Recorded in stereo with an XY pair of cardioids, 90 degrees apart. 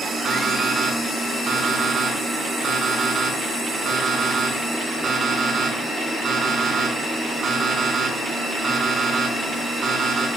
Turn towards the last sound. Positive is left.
turn(degrees=-60)